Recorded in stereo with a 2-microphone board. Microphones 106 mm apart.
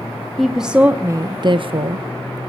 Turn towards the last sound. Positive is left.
turn(degrees=-70)  # may be behind; listen again after turning